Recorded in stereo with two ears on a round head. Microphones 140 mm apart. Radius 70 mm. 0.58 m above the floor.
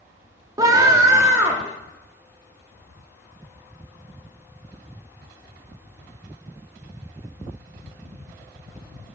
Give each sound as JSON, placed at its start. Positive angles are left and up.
{"t": 0.6, "sound": "a scream", "side_deg": -20, "distance_m": 0.7}